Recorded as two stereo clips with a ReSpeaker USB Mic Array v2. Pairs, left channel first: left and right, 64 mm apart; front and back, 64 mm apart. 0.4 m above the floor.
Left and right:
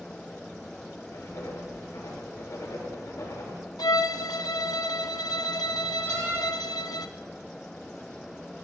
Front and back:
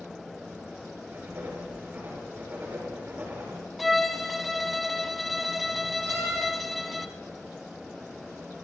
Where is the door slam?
145° left, 9.5 m.